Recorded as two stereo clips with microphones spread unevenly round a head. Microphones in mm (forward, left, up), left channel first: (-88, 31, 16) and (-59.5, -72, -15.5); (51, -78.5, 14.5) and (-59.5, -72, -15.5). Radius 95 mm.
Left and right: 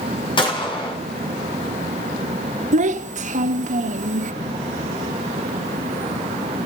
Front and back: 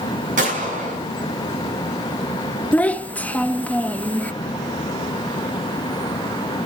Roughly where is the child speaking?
Right.